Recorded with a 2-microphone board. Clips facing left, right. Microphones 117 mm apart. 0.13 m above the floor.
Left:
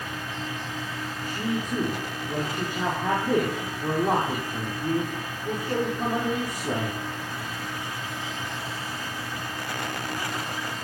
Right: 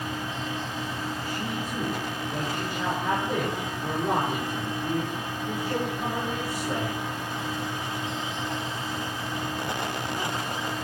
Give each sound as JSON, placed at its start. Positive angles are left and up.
{"t": 1.2, "sound": "a man speaking", "side_deg": 45, "distance_m": 6.5}